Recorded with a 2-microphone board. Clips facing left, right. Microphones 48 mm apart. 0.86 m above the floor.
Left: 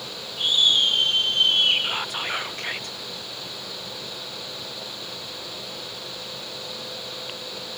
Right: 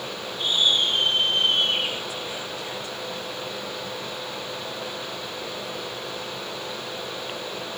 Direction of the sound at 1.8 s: 65° left (ahead or behind).